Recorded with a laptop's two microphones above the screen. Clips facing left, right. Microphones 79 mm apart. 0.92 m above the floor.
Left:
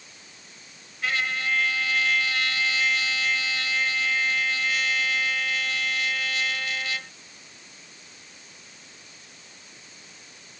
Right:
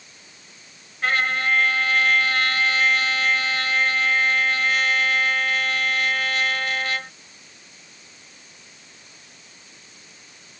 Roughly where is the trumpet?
Right.